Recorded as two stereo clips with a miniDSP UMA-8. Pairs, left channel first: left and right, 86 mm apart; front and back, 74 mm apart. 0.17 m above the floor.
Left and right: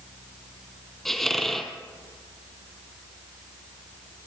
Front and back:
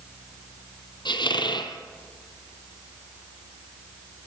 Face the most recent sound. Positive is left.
turn(degrees=5)